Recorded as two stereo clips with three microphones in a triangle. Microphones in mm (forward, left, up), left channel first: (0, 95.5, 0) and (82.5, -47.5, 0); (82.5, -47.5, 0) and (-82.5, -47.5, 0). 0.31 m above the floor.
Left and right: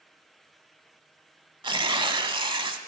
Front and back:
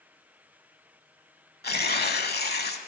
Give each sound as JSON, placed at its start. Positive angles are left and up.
{"t": 1.6, "sound": "tearing paper", "azimuth_deg": 0, "distance_m": 0.7}